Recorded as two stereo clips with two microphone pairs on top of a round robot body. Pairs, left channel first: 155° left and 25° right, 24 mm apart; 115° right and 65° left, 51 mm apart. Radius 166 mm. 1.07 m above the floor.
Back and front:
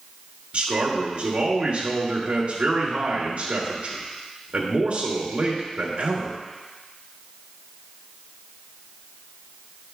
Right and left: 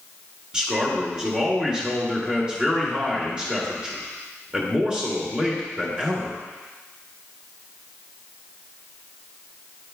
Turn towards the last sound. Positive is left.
turn(degrees=0)